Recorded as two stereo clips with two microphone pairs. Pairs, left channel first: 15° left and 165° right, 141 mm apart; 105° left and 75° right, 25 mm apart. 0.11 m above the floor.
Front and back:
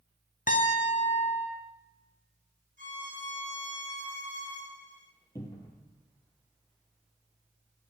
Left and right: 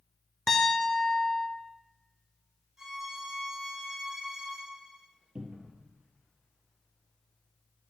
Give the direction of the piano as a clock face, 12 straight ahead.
11 o'clock.